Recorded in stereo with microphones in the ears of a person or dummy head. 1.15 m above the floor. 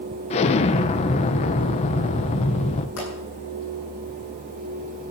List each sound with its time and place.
0.3 s an explosion: 35° left (ahead or behind), 0.8 m
3.0 s a pop: 75° left (ahead or behind), 10 m